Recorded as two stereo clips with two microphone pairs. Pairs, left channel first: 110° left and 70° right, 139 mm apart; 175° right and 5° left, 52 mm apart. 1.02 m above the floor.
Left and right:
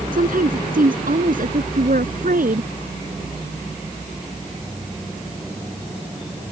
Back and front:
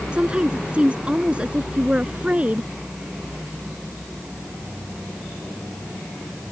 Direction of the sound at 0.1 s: 65° right.